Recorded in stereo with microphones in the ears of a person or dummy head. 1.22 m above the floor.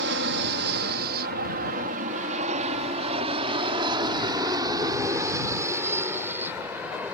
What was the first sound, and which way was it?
An aircraft, 60° right (ahead or behind).